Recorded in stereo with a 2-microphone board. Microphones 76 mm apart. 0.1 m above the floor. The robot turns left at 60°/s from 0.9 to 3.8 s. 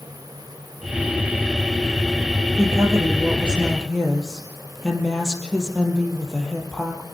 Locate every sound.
2.6 s a woman speaking: 110° right, 3.5 m; by 7.0 s 175° left, 3.5 m